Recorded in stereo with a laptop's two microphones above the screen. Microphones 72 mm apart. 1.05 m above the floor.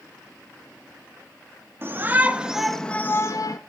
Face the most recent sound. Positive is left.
turn(degrees=55)  # may be behind; listen again after turning